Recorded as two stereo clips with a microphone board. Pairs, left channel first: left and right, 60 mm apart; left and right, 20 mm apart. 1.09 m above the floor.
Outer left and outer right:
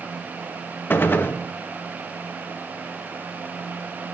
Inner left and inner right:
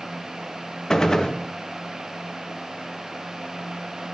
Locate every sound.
0.9 s a gunshot: 35° left (ahead or behind), 0.8 m